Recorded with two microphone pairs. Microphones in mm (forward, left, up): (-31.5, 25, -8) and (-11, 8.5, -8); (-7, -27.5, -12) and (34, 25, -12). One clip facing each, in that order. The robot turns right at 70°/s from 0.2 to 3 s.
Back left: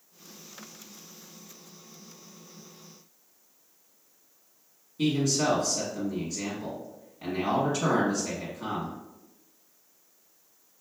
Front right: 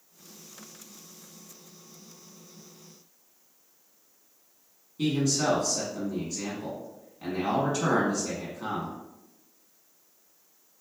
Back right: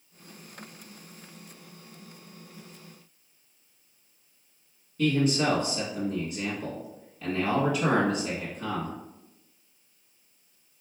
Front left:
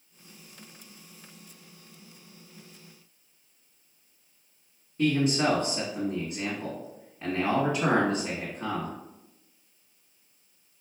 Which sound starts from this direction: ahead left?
A man speaking, at 5.0 s.